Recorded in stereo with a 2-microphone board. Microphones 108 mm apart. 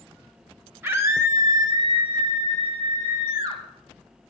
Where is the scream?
20° right (ahead or behind), 1.9 m; by 3.6 s 45° right (ahead or behind), 2.5 m.